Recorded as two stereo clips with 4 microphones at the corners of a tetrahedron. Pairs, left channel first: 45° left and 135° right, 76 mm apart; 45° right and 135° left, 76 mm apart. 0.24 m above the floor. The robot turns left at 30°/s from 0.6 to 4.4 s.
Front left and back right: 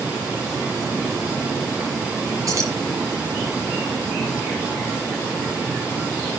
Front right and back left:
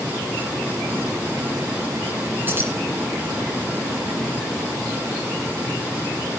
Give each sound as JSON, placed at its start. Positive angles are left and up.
{"t": 2.5, "sound": "keys jangling", "azimuth_deg": -165, "distance_m": 2.0}